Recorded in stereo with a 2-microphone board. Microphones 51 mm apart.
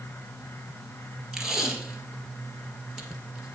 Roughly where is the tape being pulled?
Centre.